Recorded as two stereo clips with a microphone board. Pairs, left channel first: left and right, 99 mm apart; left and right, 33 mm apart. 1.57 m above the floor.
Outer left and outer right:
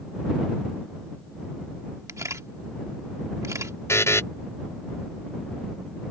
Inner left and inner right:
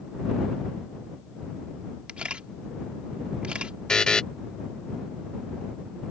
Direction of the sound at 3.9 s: 25° left (ahead or behind).